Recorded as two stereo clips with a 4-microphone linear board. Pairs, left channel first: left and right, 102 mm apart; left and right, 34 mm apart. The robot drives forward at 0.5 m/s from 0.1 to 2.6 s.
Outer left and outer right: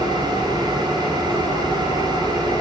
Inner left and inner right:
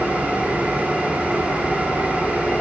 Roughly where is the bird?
No bird in this recording.